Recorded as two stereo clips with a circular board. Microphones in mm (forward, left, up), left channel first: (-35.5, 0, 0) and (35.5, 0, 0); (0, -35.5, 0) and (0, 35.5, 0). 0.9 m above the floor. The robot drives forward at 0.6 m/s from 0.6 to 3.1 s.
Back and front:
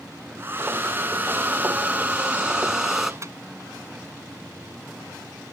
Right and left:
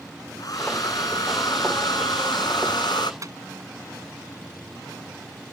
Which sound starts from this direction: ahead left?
A microwave, at 3.2 s.